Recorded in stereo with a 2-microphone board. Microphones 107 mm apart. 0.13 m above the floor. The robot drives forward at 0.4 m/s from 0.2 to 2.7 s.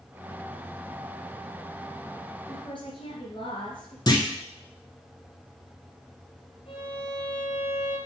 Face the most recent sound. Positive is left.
turn(degrees=65)  # may be behind; listen again after turning